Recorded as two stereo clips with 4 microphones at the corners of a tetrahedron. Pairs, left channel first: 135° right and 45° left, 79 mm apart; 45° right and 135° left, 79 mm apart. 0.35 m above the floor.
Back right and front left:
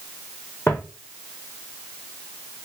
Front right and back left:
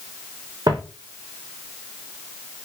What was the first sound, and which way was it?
Footsteps, 165° left.